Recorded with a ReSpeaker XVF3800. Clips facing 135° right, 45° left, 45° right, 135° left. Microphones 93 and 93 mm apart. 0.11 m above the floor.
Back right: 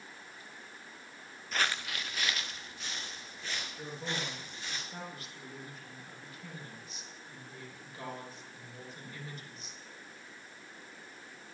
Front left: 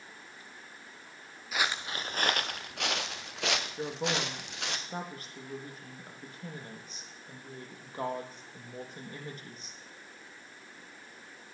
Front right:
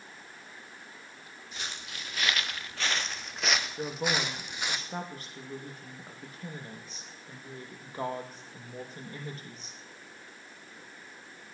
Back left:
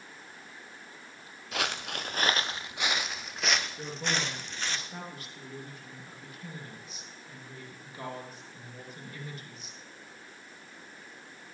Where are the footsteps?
130° left, 0.8 m; by 4.8 s 30° left, 2.5 m.